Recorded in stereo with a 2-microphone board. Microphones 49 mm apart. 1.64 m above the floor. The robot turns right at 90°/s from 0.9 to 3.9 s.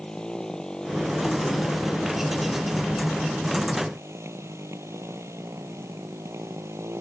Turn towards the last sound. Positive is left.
turn(degrees=-75)